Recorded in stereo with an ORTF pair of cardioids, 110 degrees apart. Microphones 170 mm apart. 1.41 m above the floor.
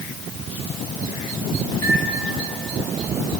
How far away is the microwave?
About 2.5 m.